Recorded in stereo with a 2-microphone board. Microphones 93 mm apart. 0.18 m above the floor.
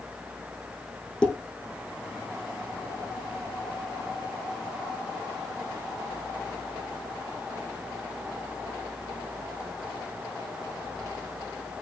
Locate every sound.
1.2 s dishes clattering: 10° left (ahead or behind), 4.5 m